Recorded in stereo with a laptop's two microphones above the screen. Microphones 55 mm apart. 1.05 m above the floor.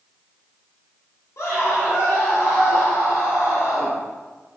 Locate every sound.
1.4 s a scream: 65° left (ahead or behind), 3 m